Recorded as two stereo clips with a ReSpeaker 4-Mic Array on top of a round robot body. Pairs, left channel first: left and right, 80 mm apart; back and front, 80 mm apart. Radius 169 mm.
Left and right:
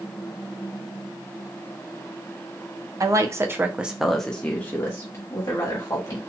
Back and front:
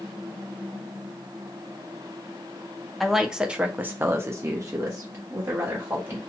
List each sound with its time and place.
3.0 s a woman speaking: 90° right, 0.8 m; by 6.2 s 50° left, 1.4 m